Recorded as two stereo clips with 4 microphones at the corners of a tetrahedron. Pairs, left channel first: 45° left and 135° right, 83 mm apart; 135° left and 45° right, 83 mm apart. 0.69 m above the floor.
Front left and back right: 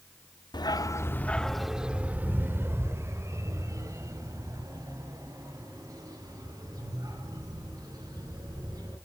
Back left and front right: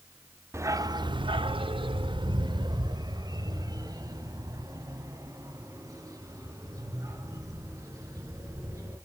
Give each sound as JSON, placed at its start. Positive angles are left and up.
{"t": 0.5, "sound": "a dog barking", "azimuth_deg": 15, "distance_m": 0.6}